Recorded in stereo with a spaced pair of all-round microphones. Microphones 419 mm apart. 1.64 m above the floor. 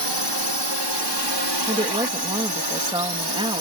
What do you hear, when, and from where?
0.0 s a drone: 75° right (ahead or behind); by 3.6 s 70° right (ahead or behind)
1.7 s a woman speaking: 10° right (ahead or behind)